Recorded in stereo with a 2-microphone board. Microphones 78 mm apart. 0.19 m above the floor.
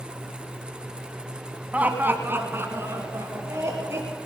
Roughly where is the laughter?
Centre.